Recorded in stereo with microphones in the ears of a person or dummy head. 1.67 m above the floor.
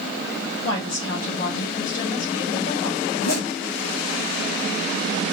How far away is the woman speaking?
About 2.5 m.